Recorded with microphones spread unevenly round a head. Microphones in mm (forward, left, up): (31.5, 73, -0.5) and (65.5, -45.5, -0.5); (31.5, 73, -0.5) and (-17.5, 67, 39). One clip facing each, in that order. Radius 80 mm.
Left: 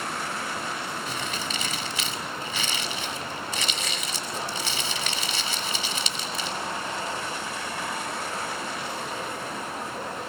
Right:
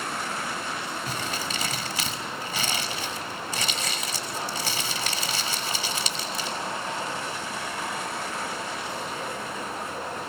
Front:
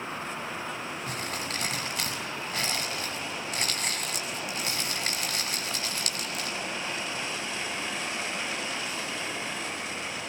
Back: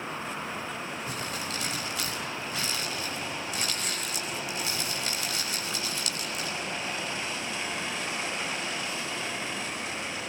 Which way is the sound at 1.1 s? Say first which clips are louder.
Even, even; 20° right.